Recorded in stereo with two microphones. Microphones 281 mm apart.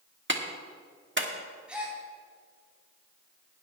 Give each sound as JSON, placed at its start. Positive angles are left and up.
{"t": 0.3, "sound": "a clap", "side_deg": -40, "distance_m": 1.3}
{"t": 1.7, "sound": "a gasp", "side_deg": -5, "distance_m": 3.5}